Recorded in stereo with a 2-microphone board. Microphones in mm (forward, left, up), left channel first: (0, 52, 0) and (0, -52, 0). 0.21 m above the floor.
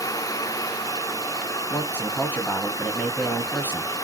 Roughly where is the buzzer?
I don't hear a buzzer.